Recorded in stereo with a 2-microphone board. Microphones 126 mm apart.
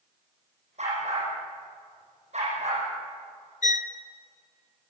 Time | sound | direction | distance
0.8 | a dog barking | 60° right (ahead or behind) | 9.5 m
3.6 | a violin | 75° left (ahead or behind) | 1.0 m